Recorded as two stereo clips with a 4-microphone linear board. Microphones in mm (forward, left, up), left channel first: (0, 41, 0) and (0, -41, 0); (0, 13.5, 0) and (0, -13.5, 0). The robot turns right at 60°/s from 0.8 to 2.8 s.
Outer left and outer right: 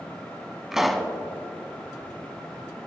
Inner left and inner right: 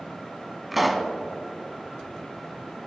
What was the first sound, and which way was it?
A pop, 5° right (ahead or behind).